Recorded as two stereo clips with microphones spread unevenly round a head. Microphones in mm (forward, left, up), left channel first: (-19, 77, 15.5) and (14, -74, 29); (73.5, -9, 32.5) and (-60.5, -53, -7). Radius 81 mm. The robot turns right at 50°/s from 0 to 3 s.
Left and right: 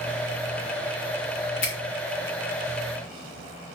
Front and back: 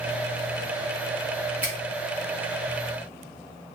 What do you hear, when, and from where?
1.6 s a finger snap: 115° left, 0.7 m; by 1.8 s 120° left, 0.7 m